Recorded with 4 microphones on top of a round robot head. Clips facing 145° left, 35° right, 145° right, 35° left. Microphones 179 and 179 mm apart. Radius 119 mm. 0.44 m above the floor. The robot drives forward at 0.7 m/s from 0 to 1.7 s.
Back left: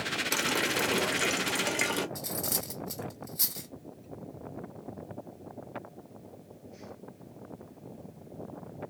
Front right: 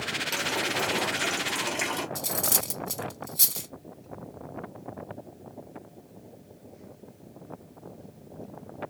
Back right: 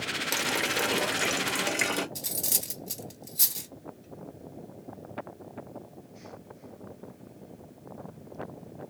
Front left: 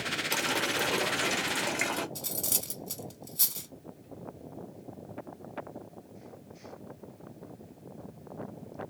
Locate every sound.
0.3 s a running tap: 135° left, 0.9 m; by 2.0 s 160° left, 1.7 m
2.1 s cutlery clinking: 70° right, 0.7 m